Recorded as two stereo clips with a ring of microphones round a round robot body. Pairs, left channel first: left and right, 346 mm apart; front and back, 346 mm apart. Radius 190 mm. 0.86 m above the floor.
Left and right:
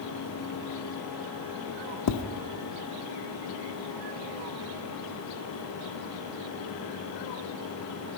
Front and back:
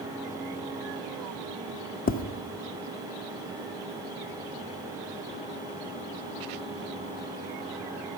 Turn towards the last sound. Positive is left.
turn(degrees=60)